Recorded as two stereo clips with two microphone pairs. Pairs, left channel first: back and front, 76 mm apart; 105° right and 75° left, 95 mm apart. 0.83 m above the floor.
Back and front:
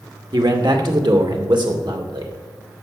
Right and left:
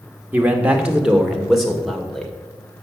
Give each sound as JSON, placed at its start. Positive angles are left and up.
{"t": 0.3, "sound": "a man speaking", "azimuth_deg": 5, "distance_m": 2.0}